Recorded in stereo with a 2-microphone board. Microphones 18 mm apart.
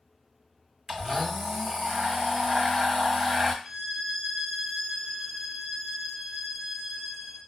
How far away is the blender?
About 1.8 m.